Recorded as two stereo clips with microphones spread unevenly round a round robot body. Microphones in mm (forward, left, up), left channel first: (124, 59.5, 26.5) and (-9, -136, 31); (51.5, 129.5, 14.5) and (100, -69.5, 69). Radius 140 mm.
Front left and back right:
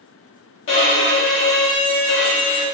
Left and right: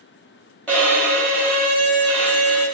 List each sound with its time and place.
0.7 s a violin: 20° left, 1.5 m